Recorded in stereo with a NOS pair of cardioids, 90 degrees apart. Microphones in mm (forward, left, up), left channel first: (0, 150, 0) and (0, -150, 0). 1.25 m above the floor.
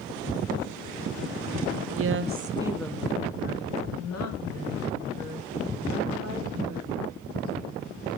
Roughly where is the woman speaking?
Ahead right.